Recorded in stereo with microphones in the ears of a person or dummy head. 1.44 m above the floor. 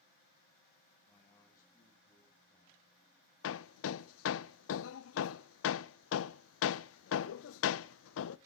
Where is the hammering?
75° left (ahead or behind), 0.8 m.